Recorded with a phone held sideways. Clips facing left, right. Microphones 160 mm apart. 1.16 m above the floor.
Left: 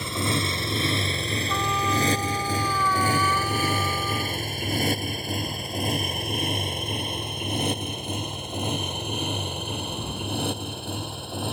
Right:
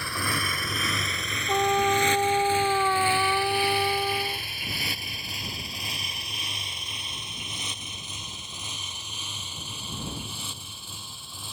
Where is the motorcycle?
20° left (ahead or behind); by 11.6 s 65° left (ahead or behind).